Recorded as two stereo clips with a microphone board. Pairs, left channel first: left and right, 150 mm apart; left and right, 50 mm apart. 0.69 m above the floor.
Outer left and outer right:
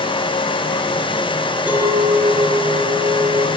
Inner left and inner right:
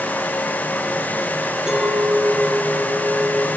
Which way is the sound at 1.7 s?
10° right (ahead or behind).